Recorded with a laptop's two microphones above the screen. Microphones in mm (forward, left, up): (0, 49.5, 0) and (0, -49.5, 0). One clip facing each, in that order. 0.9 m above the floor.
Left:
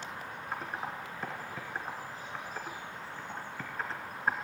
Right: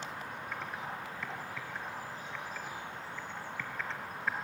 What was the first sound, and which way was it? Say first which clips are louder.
Typing on a keyboard: left 4 dB; 40° left (ahead or behind).